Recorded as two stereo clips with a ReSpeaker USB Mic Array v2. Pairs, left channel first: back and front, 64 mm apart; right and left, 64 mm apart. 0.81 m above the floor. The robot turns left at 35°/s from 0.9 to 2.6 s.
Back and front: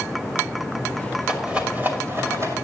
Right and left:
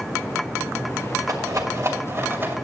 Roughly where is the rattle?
Left.